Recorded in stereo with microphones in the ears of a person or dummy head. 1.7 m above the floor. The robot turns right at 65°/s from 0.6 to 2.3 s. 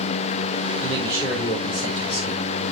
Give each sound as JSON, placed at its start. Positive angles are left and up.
{"t": 0.8, "sound": "a man speaking", "azimuth_deg": -15, "distance_m": 5.0}